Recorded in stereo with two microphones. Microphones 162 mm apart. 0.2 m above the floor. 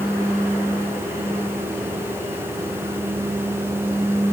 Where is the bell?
No bell in this recording.